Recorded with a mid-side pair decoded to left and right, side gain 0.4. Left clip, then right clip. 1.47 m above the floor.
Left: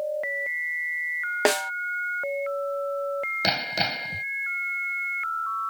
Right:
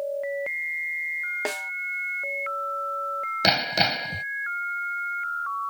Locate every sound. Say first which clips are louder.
1.4 s a snare drum: left 6 dB; 60° left
3.4 s hammering: right 6 dB; 35° right